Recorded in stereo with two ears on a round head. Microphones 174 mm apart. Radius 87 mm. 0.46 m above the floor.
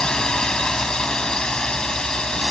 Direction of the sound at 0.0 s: 5° left (ahead or behind).